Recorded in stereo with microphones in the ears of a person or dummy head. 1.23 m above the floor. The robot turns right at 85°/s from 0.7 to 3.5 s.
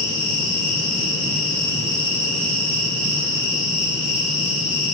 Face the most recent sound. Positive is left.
turn(degrees=-5)